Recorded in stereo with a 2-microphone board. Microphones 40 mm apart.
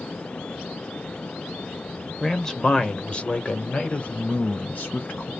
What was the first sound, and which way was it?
A man speaking, 10° left (ahead or behind).